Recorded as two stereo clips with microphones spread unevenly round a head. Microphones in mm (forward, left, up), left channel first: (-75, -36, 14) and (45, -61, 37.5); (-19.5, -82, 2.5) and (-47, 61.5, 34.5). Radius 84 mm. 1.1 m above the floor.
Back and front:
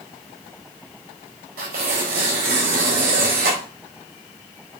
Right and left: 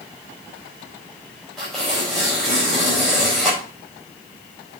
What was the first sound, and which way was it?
Tearing paper, 10° left.